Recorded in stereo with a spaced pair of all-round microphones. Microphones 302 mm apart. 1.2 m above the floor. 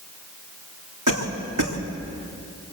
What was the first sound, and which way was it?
A cough, 80° right.